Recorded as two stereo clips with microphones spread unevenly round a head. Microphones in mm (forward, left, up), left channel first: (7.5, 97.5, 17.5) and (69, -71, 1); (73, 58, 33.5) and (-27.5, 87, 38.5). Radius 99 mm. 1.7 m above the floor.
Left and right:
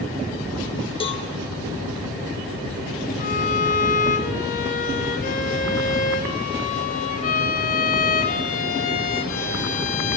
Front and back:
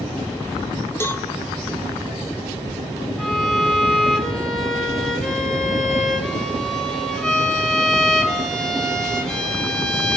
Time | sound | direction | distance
1.0 | a cowbell | 50° left | 2 m
3.2 | a violin | 70° left | 4.5 m